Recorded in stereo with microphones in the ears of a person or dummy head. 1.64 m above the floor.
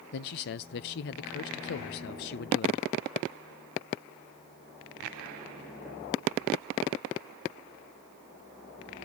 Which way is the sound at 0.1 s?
50° left (ahead or behind).